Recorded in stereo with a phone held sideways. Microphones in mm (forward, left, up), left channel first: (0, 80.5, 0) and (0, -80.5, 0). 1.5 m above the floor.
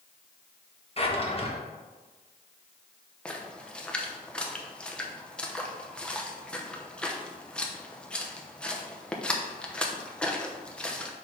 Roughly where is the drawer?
Left.